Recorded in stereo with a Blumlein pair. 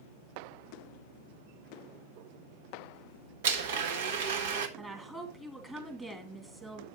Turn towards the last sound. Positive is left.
turn(degrees=-10)